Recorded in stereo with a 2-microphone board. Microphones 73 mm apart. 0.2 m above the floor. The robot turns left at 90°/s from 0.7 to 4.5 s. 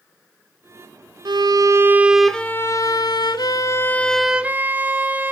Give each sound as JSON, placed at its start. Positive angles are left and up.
{"t": 1.2, "sound": "a violin", "azimuth_deg": -95, "distance_m": 0.5}